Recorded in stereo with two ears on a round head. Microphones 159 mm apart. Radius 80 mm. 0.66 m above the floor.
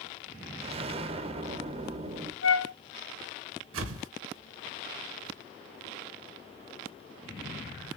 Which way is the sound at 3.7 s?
85° right.